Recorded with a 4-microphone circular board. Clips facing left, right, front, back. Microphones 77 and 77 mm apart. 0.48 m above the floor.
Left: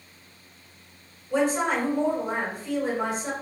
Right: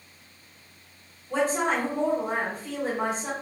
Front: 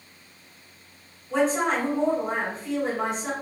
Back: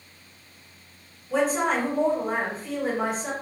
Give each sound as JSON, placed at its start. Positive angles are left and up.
{"t": 1.3, "sound": "a woman speaking", "azimuth_deg": -95, "distance_m": 1.6}